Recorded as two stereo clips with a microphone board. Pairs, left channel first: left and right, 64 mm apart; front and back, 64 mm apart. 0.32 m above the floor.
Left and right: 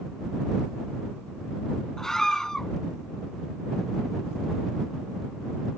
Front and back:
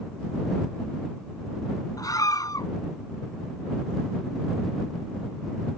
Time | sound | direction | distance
2.0 | a scream | 10° left | ?